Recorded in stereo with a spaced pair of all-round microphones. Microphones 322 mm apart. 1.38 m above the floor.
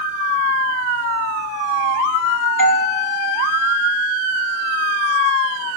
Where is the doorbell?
70° right (ahead or behind), 2.5 m.